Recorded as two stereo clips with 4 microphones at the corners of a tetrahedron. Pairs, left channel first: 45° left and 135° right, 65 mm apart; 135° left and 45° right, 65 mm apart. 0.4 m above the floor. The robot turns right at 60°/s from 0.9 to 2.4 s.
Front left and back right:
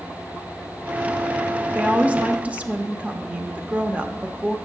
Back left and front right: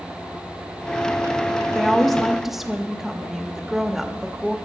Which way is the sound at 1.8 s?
170° right.